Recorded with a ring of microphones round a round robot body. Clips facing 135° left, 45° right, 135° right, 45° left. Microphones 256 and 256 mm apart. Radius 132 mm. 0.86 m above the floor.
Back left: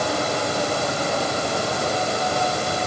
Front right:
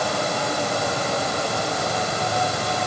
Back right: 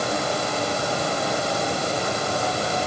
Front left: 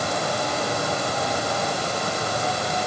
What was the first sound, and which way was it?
Only background noise.